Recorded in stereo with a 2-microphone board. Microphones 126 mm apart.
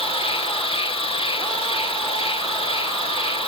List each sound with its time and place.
0.0 s an insect: 45° left (ahead or behind), 1.0 m